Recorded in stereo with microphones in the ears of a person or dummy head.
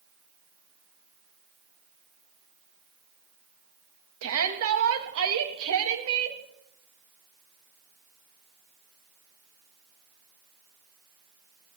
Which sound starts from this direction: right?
A shout, at 4.2 s.